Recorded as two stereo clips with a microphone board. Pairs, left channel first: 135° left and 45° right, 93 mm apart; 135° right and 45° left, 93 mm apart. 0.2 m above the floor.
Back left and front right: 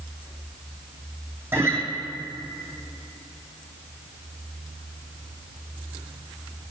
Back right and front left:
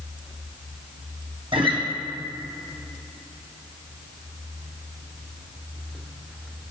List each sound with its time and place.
1.5 s a guitar: 20° left, 1.8 m